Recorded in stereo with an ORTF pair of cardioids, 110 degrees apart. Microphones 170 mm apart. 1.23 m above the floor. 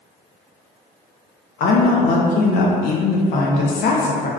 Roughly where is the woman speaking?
Ahead left.